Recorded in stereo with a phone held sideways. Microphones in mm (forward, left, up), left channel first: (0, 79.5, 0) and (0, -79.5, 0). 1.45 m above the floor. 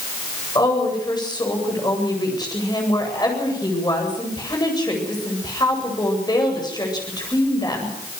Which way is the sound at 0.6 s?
25° left (ahead or behind).